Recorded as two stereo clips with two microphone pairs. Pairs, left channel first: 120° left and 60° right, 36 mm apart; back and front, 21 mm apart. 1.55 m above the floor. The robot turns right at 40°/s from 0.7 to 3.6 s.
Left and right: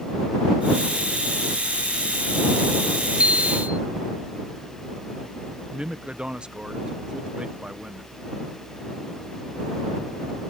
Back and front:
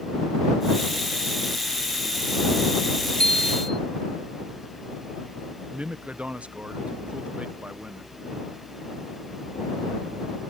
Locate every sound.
3.1 s a bicycle bell: 120° right; by 3.8 s 105° right
5.7 s a man speaking: straight ahead